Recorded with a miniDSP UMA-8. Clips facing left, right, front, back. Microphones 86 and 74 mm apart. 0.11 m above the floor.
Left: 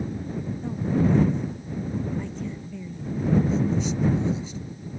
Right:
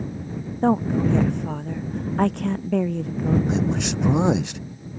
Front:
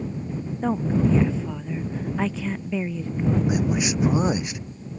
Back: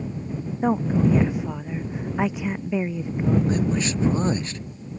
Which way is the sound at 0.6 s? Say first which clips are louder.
Right 5 dB, back 2 dB; 105° right.